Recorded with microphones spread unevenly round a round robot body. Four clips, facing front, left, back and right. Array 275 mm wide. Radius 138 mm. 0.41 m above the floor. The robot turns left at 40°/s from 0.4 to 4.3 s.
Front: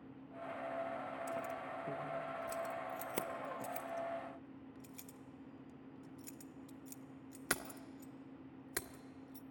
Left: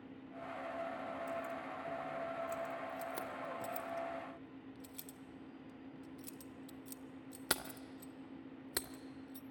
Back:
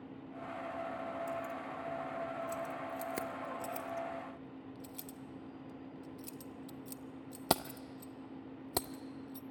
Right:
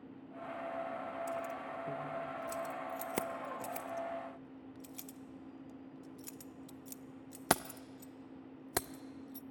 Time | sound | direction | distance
1.3 | keys jangling | 15° right | 0.6 m